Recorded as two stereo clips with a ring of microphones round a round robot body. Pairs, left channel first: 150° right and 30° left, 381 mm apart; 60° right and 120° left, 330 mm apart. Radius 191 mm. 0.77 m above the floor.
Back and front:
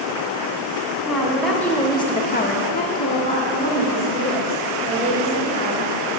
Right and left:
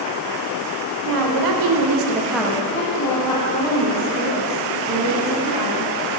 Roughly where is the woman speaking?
Behind left.